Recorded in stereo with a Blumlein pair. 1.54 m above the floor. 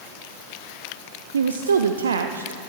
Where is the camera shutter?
No camera shutter in this recording.